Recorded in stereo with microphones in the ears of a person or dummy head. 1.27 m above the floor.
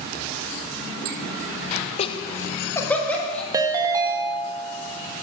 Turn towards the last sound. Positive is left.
turn(degrees=-15)  # may be behind; listen again after turning